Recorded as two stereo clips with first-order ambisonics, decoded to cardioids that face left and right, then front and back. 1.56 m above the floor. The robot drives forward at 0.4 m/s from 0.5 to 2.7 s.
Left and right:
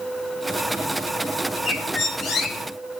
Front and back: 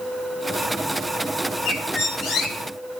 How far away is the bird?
About 1.7 m.